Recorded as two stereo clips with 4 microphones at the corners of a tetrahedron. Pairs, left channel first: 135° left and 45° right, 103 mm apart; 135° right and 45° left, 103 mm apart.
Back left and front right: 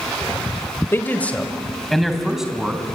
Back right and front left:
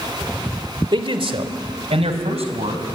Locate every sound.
0.9 s a man speaking: 75° left, 1.8 m; by 2.8 s 40° left, 4 m